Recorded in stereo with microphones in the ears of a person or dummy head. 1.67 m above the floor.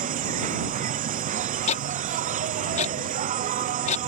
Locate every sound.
0.0 s an insect: 40° right (ahead or behind)
1.7 s ticking: 40° left (ahead or behind)